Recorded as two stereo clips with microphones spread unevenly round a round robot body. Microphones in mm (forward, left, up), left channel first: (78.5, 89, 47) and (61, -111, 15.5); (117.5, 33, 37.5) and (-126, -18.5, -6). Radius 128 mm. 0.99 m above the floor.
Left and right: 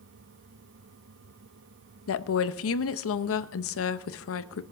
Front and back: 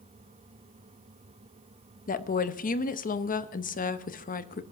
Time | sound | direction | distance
2.1 | a woman speaking | 75° left | 0.8 m